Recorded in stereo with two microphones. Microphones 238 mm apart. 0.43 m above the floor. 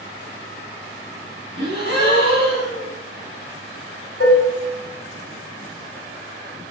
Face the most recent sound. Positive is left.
turn(degrees=65)  # may be behind; listen again after turning